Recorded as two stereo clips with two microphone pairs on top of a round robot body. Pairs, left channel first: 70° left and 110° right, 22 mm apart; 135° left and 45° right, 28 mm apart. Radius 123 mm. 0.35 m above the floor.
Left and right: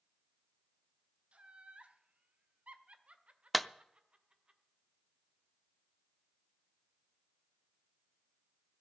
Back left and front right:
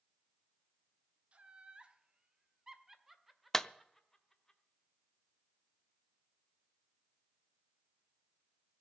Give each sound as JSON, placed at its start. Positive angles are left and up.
{"t": 1.3, "sound": "laughter", "azimuth_deg": -85, "distance_m": 2.5}
{"t": 3.5, "sound": "a clap", "azimuth_deg": 135, "distance_m": 0.8}